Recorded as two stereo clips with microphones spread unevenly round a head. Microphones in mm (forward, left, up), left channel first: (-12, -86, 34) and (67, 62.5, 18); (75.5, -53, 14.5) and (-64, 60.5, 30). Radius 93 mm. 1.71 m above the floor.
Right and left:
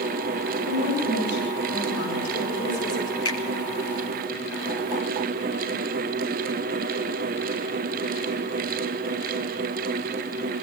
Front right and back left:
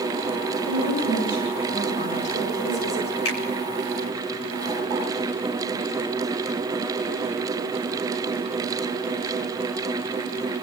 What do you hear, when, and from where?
0.7 s a woman speaking: 90° right, 9 m; by 3.1 s 75° right, 8.5 m
3.2 s a finger snap: 55° right, 4 m